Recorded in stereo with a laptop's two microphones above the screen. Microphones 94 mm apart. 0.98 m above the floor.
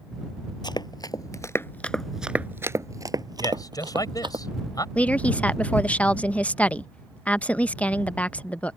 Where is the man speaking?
40° left (ahead or behind).